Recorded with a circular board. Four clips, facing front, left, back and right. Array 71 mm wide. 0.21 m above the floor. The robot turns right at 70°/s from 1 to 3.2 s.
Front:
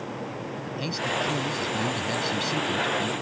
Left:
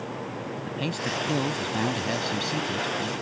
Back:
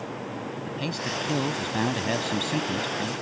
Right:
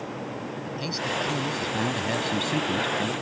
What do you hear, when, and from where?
0.7 s a man speaking: 115° left; by 3.1 s 95° right